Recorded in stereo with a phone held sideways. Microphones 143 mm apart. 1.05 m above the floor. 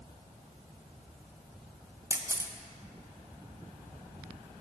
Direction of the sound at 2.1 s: 20° right (ahead or behind).